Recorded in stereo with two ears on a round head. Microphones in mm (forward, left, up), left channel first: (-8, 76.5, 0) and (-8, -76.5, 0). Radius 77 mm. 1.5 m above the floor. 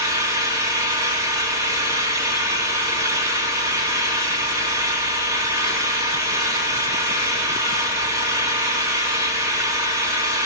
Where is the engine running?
20° right (ahead or behind), 3 m.